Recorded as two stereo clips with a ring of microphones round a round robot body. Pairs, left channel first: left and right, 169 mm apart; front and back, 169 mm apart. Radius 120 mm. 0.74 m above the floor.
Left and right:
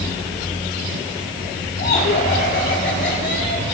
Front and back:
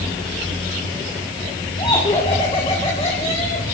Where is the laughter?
65° left, 2.5 m; by 3.6 s 55° left, 4.5 m.